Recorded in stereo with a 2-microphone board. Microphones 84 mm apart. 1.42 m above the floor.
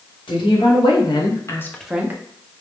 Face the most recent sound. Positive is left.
turn(degrees=-30)  # may be behind; listen again after turning